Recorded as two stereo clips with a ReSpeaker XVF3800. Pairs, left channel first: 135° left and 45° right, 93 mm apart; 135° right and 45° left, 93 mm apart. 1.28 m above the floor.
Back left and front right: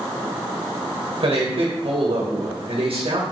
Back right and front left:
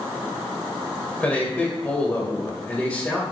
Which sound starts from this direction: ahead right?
A man speaking, at 1.2 s.